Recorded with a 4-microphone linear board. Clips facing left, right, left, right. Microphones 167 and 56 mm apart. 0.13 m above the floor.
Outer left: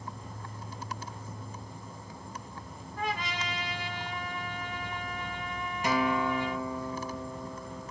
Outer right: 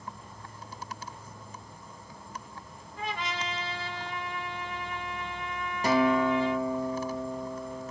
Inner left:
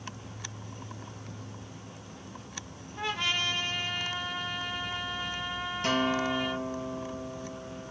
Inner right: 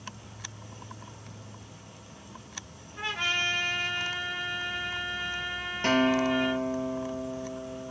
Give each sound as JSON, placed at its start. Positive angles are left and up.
{"t": 0.0, "sound": "an insect", "side_deg": 35, "distance_m": 0.9}
{"t": 3.0, "sound": "a trumpet", "side_deg": -30, "distance_m": 1.6}
{"t": 5.8, "sound": "a guitar", "side_deg": -40, "distance_m": 0.8}